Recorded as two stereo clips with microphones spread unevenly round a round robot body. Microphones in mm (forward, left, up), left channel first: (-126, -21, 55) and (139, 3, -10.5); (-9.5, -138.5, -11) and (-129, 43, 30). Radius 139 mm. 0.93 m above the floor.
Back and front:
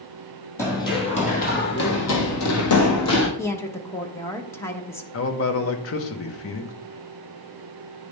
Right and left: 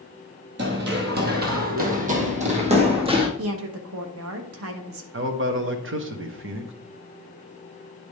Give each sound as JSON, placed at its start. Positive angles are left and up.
{"t": 0.6, "sound": "running footsteps", "azimuth_deg": 115, "distance_m": 1.6}
{"t": 3.4, "sound": "a woman speaking", "azimuth_deg": 95, "distance_m": 0.9}
{"t": 5.1, "sound": "a man speaking", "azimuth_deg": 145, "distance_m": 1.1}